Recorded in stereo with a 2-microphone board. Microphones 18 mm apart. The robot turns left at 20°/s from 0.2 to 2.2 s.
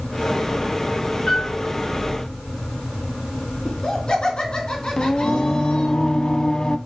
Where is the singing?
40° left (ahead or behind), 0.5 m.